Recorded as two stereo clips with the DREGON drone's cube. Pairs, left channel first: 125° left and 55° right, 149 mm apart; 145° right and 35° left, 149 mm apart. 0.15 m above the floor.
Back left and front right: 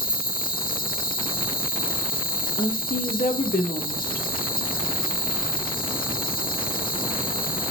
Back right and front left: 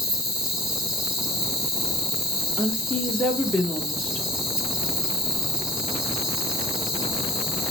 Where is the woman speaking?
130° left, 5 m.